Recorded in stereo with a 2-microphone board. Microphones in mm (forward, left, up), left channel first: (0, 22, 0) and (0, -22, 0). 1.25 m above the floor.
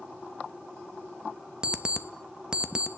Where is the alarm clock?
20° right (ahead or behind), 0.7 m.